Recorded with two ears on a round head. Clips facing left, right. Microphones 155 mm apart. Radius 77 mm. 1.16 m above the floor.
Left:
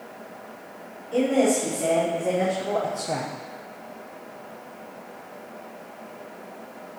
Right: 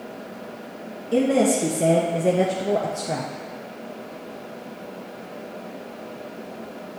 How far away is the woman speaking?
About 1.3 m.